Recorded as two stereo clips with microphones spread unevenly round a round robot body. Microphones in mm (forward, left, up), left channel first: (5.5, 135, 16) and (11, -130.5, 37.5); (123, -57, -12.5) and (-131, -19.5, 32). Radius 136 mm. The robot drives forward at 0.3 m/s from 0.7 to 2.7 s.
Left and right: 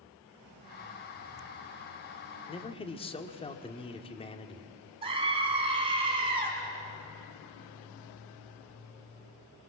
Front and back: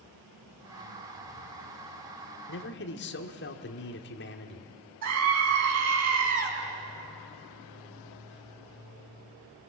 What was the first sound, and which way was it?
A man speaking, 25° left.